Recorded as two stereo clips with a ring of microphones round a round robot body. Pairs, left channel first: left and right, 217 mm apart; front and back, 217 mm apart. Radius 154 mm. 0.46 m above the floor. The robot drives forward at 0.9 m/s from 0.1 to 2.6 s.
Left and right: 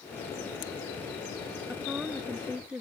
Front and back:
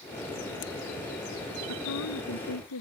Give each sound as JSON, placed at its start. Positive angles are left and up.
{"t": 1.7, "sound": "a woman speaking", "azimuth_deg": -5}